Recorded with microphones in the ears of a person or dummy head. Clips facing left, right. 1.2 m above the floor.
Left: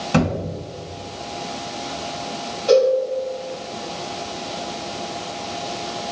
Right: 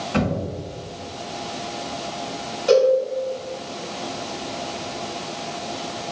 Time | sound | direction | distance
0.1 | a thud | 65° left (ahead or behind) | 1.9 m
2.7 | a cowbell | 20° right (ahead or behind) | 1.7 m